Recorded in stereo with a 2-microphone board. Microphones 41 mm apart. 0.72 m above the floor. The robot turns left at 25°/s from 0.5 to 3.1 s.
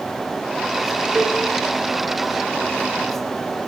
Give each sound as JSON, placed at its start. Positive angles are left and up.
{"t": 1.1, "sound": "a cowbell", "side_deg": -50, "distance_m": 2.0}